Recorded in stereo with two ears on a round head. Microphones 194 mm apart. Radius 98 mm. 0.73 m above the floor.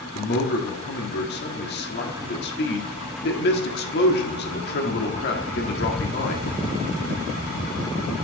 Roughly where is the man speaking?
Left.